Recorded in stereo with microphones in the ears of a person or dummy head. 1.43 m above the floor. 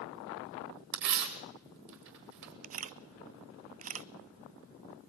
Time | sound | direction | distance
0.9 | tearing paper | 55° right (ahead or behind) | 2.0 m
2.6 | a camera shutter | 40° right (ahead or behind) | 0.6 m